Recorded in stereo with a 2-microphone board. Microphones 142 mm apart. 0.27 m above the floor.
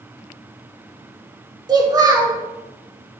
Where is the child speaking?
30° right (ahead or behind), 0.7 m.